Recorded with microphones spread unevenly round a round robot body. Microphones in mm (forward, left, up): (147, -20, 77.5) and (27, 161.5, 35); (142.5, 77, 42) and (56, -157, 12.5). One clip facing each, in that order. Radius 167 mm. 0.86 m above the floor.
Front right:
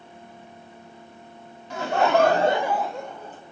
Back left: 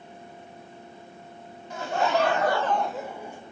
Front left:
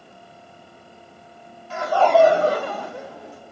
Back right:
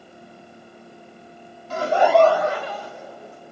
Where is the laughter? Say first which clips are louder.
Front right 4 dB, even; 75° right, 0.6 m; by 3.4 s 50° left, 1.2 m.